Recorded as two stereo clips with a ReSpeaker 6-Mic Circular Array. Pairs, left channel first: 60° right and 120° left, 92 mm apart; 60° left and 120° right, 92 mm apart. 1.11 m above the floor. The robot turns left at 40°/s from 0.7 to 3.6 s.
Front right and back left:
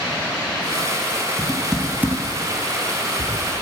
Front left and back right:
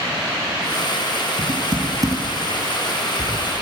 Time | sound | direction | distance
1.4 | typing on a keyboard | 145° right | 4.5 m